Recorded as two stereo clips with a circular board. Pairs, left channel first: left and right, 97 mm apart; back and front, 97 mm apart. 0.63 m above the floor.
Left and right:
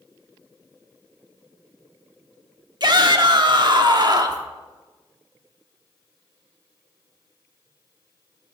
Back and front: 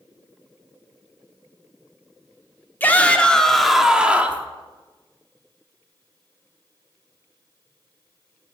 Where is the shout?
115° right, 1.3 m; by 4.5 s 60° right, 1.1 m.